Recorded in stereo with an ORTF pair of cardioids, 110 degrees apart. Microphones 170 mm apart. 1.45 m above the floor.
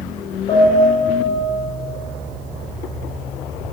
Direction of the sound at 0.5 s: 50° left.